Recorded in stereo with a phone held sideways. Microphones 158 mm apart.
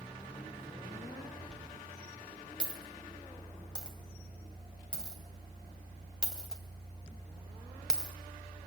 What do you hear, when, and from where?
1.5 s a dropped coin: 5° left (ahead or behind), 2.5 m